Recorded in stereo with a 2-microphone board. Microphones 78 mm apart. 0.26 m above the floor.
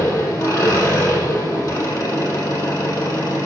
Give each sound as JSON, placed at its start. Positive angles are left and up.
{"t": 0.0, "sound": "an engine running", "side_deg": 35, "distance_m": 4.0}